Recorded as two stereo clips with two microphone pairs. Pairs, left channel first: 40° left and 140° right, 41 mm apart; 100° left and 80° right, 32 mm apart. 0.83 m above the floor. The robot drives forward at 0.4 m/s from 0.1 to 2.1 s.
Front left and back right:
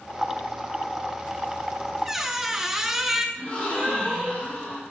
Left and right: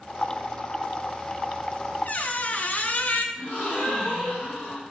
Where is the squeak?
135° left, 0.5 m.